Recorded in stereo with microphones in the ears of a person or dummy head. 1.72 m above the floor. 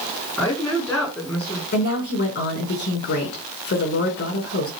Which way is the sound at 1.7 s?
45° left (ahead or behind).